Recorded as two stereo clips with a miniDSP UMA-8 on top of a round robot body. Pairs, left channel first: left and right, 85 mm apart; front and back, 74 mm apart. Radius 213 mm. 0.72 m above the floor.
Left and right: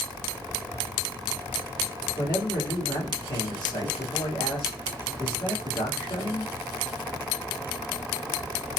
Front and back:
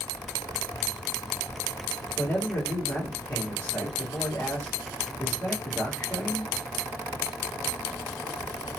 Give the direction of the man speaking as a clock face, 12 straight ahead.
10 o'clock.